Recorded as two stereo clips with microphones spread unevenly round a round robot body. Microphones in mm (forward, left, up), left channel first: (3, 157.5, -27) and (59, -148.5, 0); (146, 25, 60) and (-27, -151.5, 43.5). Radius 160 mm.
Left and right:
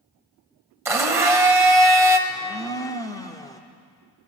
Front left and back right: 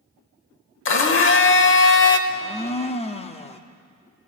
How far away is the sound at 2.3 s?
About 0.7 m.